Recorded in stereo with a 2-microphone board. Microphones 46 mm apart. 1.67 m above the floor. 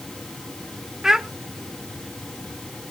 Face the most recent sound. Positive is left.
turn(degrees=-10)  # may be behind; listen again after turning